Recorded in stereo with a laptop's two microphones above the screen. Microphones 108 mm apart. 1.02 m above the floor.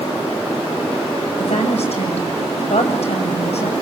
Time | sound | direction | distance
1.4 | a woman speaking | 70° left (ahead or behind) | 6.5 m